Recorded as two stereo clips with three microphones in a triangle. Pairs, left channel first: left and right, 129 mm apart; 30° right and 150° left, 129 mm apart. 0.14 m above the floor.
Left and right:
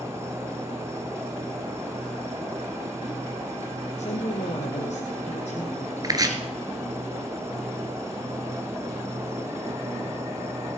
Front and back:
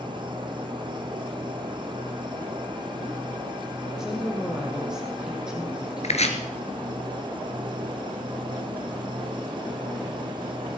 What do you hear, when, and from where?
0.0 s an insect: 160° right, 1.6 m
4.0 s a woman speaking: 65° left, 4 m
6.0 s chopping: 35° right, 2.5 m